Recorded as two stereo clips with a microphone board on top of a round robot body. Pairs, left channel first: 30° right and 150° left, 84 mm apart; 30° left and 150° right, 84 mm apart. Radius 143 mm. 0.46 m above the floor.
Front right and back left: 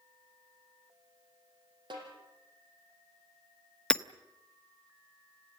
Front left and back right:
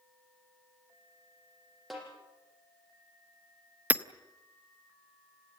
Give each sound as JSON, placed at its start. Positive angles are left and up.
{"t": 1.9, "sound": "a snare drum", "azimuth_deg": 120, "distance_m": 6.5}
{"t": 3.9, "sound": "hammering", "azimuth_deg": -100, "distance_m": 1.1}